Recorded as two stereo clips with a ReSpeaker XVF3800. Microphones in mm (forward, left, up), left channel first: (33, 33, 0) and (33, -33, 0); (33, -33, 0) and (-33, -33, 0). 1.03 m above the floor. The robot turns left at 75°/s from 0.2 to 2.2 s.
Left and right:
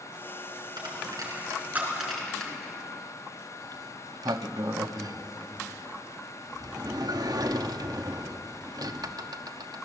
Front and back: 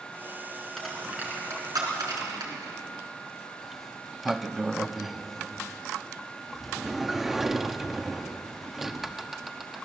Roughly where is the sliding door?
Right.